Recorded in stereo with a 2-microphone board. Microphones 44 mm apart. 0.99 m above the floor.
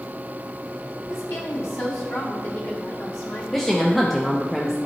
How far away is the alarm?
No alarm in this recording.